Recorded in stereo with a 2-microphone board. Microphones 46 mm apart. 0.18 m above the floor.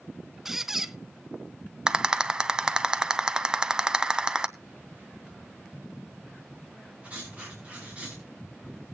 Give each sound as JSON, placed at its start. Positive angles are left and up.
{"t": 0.5, "sound": "a squeak", "side_deg": -10, "distance_m": 0.6}
{"t": 1.9, "sound": "a rattle", "side_deg": -20, "distance_m": 0.6}
{"t": 4.6, "sound": "a phone buzzing", "side_deg": -35, "distance_m": 9.0}
{"t": 7.0, "sound": "writing", "side_deg": -30, "distance_m": 5.0}